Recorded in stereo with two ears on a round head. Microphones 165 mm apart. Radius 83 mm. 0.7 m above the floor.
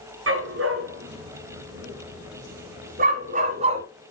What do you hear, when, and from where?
0.3 s a dog barking: 75° right (ahead or behind), 3.5 m; by 3.8 s 35° right (ahead or behind), 2.5 m